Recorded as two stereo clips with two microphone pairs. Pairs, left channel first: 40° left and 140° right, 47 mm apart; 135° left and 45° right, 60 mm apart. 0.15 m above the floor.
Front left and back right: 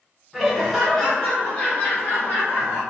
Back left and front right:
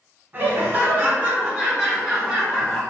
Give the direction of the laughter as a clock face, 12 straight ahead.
2 o'clock.